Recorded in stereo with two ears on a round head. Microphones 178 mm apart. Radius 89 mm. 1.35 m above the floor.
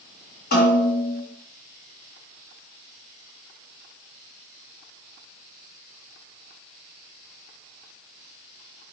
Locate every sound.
0.5 s a snare drum: 45° left (ahead or behind), 1.6 m